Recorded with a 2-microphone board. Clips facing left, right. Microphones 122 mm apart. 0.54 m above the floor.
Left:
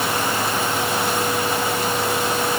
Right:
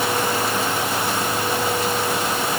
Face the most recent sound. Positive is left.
No sound to turn to.